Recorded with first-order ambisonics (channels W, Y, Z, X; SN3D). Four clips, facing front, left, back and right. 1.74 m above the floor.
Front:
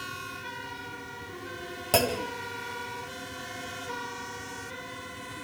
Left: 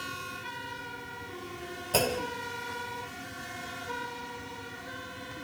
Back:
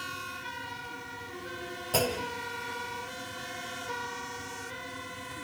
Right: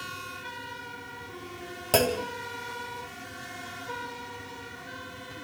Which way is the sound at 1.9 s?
50° right.